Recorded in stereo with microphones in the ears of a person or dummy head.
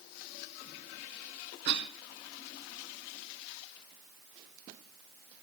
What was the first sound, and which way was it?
A cough, 55° right (ahead or behind).